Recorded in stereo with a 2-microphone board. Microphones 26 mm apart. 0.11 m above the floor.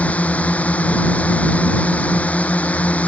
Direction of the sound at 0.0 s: 70° left (ahead or behind).